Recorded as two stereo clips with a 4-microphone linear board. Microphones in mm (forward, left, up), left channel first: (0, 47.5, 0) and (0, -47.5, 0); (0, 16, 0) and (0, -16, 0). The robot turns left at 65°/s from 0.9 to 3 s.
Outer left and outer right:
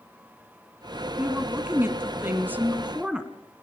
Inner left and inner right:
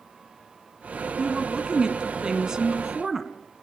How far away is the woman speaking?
About 1.6 m.